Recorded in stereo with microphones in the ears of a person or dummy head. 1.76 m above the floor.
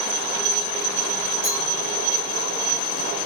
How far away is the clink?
About 5 m.